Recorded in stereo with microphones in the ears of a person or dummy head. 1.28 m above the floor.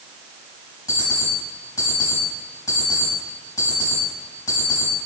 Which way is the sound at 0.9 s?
20° left (ahead or behind).